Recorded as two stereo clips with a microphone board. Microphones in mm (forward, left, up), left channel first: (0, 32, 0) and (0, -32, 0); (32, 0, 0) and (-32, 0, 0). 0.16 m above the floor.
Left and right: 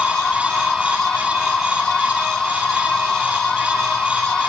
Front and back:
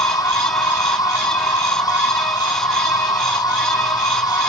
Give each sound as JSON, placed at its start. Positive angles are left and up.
{"t": 0.0, "sound": "an insect", "azimuth_deg": 10}